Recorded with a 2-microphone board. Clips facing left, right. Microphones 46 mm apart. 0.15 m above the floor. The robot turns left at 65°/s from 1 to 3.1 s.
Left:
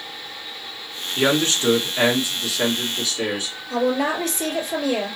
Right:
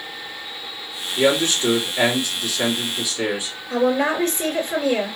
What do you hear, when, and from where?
1.2 s a man speaking: 100° left, 1.9 m; by 3.5 s 25° right, 1.9 m
3.7 s a woman speaking: 35° right (ahead or behind), 2.5 m